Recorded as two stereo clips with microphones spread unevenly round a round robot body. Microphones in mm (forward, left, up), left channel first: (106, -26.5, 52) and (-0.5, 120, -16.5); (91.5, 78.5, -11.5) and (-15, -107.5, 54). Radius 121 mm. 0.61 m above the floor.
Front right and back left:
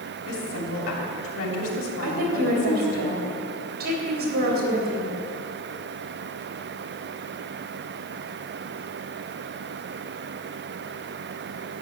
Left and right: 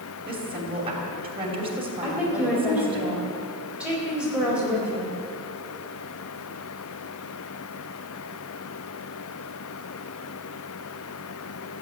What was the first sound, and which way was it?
A woman speaking, 50° right.